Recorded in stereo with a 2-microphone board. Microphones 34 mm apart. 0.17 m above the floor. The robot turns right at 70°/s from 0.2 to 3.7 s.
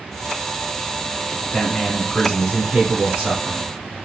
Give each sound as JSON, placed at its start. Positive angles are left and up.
{"t": 1.4, "sound": "a man speaking", "azimuth_deg": 155, "distance_m": 1.7}